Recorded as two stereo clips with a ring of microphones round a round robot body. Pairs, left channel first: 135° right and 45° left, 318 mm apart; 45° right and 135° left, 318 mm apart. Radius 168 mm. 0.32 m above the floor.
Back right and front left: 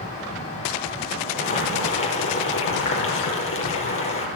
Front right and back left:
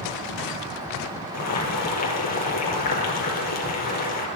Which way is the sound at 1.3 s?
85° right.